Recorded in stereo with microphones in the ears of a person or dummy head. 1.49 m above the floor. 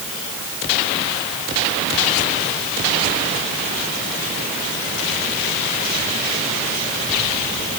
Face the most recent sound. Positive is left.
No sound to turn to.